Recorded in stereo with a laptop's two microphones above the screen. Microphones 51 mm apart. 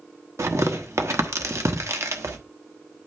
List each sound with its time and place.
0.4 s tearing paper: 70° right (ahead or behind), 1.0 m